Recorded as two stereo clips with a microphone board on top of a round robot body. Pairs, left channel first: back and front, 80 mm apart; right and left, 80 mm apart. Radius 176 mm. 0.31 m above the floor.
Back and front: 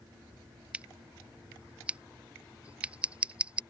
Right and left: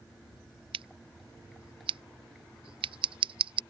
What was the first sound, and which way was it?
Scissors, 75° left.